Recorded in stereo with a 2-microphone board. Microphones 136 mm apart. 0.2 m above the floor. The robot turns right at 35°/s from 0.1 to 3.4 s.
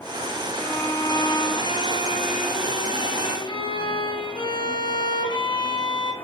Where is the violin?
25° left, 1.8 m; by 6.1 s 125° left, 1.8 m.